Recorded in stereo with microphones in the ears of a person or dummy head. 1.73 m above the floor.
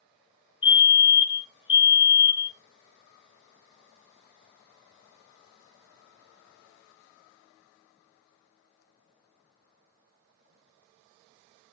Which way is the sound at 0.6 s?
25° left (ahead or behind).